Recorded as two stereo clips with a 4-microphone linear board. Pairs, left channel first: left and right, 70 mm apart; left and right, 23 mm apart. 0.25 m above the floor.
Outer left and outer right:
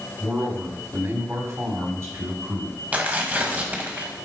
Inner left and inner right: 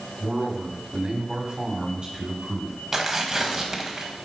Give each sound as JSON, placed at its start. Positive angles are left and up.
{"t": 0.2, "sound": "a man speaking", "side_deg": -25, "distance_m": 3.0}
{"t": 2.9, "sound": "tearing paper", "side_deg": -25, "distance_m": 1.4}